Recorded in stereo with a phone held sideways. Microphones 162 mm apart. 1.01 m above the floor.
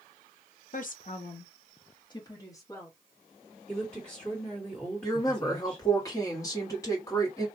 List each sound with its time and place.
0.7 s a woman speaking: 55° left (ahead or behind), 0.6 m; by 3.0 s 15° left (ahead or behind), 1.3 m
3.7 s a woman speaking: 10° left (ahead or behind), 1.6 m
5.0 s a woman speaking: 20° left (ahead or behind), 1.3 m